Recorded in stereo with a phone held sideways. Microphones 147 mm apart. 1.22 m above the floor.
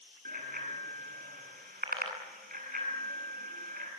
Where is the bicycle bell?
85° right, 8.5 m.